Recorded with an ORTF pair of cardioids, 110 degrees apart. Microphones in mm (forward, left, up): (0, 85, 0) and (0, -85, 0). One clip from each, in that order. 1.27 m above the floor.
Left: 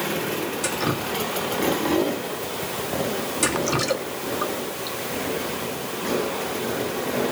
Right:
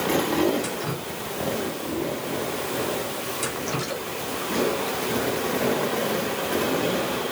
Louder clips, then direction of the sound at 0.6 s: Left 5 dB; 45° left.